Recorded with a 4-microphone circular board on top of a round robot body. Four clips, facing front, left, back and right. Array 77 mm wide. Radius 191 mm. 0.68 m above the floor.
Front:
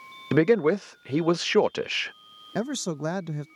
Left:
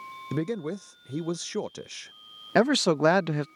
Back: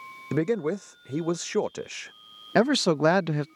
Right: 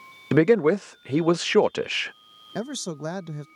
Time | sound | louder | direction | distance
0.3 | a man speaking | right 13 dB, front 6 dB | 55° right | ?
2.5 | a man speaking | left 10 dB, back 8 dB | 130° left | ?